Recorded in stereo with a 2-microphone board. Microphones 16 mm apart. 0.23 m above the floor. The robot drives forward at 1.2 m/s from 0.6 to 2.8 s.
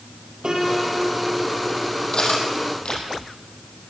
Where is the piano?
65° right (ahead or behind), 4.5 m; by 2.0 s 80° right, 4.5 m.